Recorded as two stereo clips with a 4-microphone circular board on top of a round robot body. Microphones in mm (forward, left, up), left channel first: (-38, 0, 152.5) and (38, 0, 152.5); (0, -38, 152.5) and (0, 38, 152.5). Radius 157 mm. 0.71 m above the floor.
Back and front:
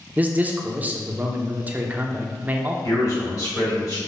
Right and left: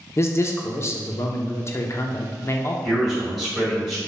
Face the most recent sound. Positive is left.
turn(degrees=180)